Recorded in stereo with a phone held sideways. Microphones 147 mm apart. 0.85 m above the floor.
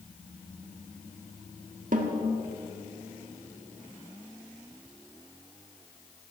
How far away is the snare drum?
About 1.4 m.